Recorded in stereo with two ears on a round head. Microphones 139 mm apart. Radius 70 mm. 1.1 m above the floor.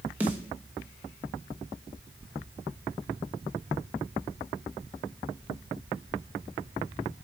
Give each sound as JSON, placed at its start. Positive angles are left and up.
{"t": 0.2, "sound": "a snare drum", "side_deg": -10, "distance_m": 1.0}